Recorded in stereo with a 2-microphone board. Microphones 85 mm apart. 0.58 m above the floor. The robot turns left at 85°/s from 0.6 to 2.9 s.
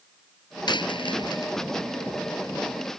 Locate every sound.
0.7 s a dropped coin: 60° left (ahead or behind); by 1.5 s 45° left (ahead or behind)